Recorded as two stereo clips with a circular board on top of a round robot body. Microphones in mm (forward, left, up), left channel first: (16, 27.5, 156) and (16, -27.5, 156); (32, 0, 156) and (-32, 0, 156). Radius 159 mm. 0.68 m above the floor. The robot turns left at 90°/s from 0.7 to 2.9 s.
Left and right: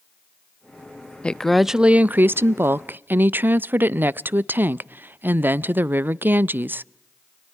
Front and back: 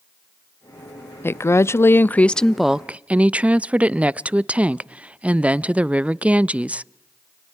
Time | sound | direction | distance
1.2 | a woman speaking | 30° left | 0.5 m